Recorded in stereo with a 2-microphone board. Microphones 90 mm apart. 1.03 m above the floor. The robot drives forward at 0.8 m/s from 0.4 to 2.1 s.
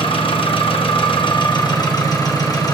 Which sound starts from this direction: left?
An engine running, at 0.0 s.